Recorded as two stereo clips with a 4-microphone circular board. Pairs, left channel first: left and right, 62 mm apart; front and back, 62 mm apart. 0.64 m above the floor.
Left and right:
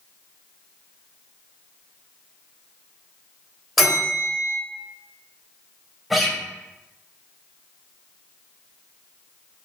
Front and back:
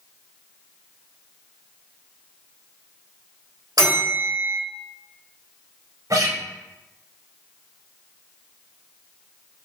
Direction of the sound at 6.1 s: Straight behind.